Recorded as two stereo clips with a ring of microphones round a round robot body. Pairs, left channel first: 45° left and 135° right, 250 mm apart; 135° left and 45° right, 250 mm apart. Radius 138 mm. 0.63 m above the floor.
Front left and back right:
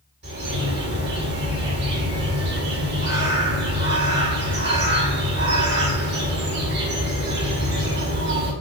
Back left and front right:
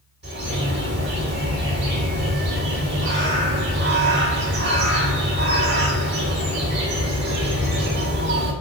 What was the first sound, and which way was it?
A bird, 90° right.